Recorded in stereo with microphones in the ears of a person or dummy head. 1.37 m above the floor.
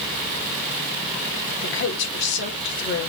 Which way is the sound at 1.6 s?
65° left (ahead or behind).